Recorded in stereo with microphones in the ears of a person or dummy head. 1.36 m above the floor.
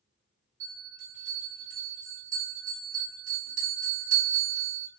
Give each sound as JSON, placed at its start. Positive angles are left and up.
{"t": 0.6, "sound": "a bell", "side_deg": -85, "distance_m": 1.8}